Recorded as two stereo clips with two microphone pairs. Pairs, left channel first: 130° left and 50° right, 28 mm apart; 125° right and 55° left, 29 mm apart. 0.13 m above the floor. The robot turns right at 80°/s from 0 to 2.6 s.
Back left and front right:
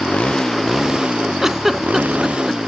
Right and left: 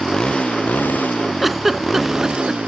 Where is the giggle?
25° right; by 2.6 s 75° left.